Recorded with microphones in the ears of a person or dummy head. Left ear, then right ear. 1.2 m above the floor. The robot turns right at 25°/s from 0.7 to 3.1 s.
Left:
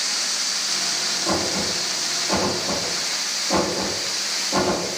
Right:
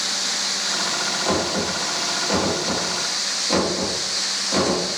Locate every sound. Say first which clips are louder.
1.2 s knocking: right 1 dB; 80° right, 1.3 m; by 4.9 s 35° right (ahead or behind), 1.3 m